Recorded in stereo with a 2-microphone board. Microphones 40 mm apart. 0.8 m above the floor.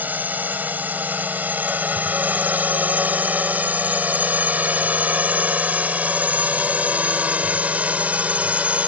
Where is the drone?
50° right (ahead or behind); by 8.9 s 35° right (ahead or behind).